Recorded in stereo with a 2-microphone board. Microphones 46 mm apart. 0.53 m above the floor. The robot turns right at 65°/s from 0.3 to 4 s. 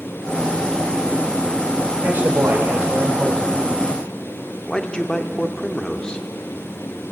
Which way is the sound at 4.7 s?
20° left (ahead or behind).